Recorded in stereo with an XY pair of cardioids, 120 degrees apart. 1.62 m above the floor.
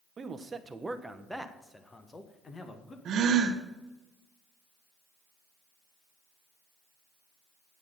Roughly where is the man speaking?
Ahead right.